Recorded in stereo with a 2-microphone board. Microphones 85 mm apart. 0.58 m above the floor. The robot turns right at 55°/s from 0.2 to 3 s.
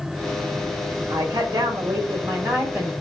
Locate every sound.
1.1 s a woman speaking: 105° right, 1.6 m; by 2.9 s 5° right, 1.6 m